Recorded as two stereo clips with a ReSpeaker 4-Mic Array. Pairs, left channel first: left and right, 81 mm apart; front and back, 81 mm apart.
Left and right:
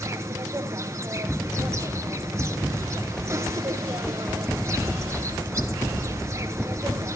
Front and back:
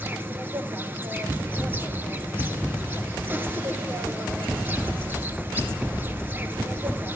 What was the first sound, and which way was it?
An insect, 125° right.